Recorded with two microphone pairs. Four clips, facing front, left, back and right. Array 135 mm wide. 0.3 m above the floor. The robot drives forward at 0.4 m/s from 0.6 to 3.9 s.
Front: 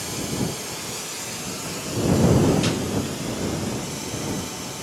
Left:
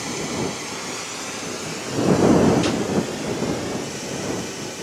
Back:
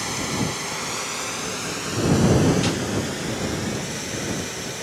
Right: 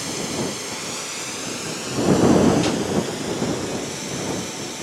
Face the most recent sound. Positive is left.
turn(degrees=175)